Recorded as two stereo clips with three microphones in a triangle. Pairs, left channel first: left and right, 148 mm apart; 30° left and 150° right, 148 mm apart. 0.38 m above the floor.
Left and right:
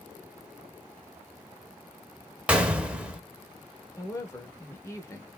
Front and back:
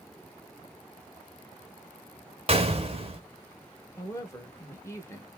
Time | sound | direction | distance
2.5 | a gunshot | 170° right | 0.7 m
4.0 | a woman speaking | 65° left | 0.8 m